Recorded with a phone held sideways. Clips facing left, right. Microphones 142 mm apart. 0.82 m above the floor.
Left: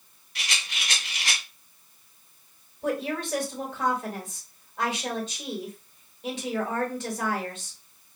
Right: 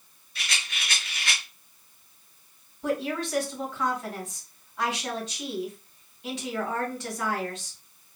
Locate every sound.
0.3 s a rattle: 70° left (ahead or behind), 2 m
2.8 s a woman speaking: 45° left (ahead or behind), 3.5 m